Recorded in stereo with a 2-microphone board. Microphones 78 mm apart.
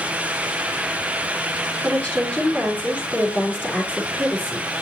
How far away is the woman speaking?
About 4.5 m.